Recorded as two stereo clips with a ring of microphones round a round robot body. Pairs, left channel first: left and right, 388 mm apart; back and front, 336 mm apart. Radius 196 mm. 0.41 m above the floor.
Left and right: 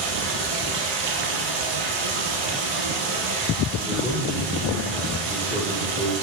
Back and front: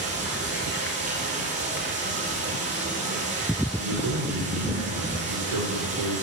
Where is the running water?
70° right, 5 m.